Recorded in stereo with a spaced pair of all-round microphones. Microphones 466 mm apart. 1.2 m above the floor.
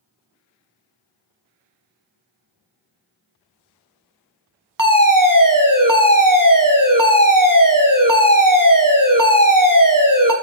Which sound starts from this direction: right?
A fire alarm, at 4.8 s.